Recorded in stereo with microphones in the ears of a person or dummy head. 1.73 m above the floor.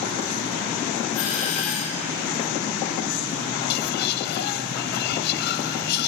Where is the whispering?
60° left (ahead or behind), 0.8 m.